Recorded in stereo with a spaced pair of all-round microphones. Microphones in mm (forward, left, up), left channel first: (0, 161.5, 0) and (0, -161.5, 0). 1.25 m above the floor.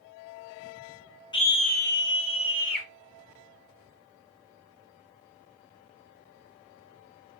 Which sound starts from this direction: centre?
A scream, at 1.3 s.